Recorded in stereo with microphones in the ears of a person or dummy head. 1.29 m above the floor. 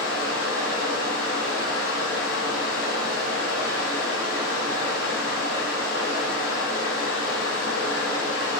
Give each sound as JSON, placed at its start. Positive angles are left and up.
{"t": 0.0, "sound": "running water", "side_deg": 85, "distance_m": 1.8}